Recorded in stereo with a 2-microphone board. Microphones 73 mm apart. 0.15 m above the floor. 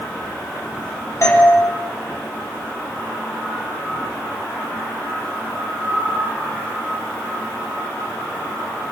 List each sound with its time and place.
1.2 s a doorbell: 40° left (ahead or behind), 6 m